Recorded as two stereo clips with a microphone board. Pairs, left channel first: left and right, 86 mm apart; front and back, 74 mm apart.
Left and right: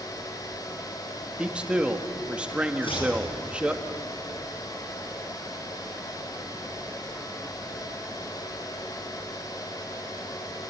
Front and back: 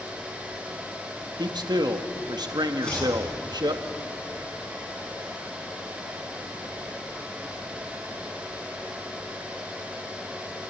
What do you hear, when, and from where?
1.4 s a man speaking: 165° right, 1.8 m
2.8 s chopping: 80° left, 8 m